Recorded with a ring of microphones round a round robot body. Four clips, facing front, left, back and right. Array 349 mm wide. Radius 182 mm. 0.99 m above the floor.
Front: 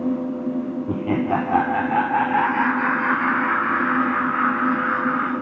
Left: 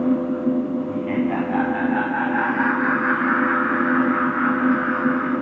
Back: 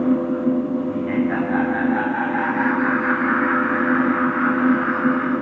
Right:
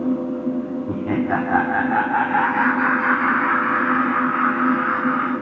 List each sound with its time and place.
0.9 s laughter: 35° right, 2 m; by 5.3 s 65° right, 5 m